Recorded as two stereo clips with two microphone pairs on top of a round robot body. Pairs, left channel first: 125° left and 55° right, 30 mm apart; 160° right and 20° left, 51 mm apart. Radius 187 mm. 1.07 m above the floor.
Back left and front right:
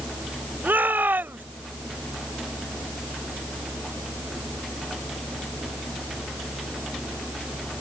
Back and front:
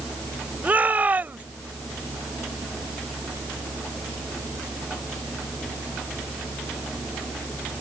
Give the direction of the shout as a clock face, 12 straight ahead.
1 o'clock.